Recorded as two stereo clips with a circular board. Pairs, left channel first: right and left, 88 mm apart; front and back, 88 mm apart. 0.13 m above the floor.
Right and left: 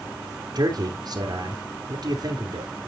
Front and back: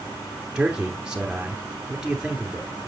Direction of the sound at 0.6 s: 100° left.